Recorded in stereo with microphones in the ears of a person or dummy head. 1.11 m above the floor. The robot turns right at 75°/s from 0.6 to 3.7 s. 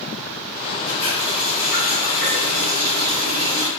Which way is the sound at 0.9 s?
135° left.